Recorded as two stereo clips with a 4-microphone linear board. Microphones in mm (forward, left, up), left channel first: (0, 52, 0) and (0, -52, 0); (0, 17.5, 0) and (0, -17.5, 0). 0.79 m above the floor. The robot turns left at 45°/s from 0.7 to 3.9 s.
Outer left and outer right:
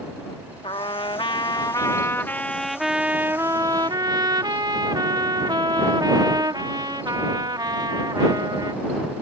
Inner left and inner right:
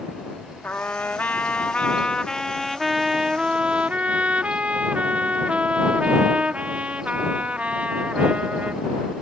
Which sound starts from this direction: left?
A trumpet, at 0.6 s.